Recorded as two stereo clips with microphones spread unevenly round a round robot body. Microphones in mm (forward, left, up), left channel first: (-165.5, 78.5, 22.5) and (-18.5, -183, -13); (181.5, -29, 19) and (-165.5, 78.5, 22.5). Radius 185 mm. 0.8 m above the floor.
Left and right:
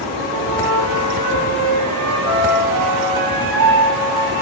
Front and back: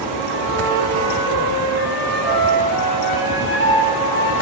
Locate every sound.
0.3 s a flute: 80° right, 2.0 m